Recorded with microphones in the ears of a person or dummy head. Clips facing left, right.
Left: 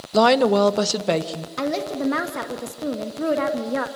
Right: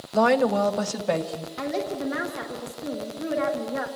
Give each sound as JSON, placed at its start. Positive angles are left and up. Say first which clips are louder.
{"t": 0.1, "sound": "a woman speaking", "louder": "left 4 dB", "side_deg": 50, "distance_m": 0.9}
{"t": 1.6, "sound": "a woman speaking", "louder": "left 4 dB", "side_deg": 75, "distance_m": 1.7}